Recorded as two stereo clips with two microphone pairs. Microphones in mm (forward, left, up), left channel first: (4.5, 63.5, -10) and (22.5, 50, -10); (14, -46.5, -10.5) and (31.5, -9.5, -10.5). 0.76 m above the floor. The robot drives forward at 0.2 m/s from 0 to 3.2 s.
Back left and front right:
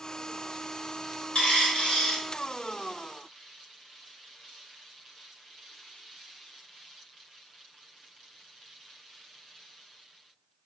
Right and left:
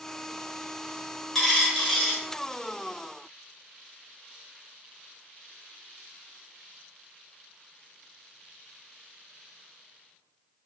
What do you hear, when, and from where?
1.4 s a dropped coin: 170° left, 0.8 m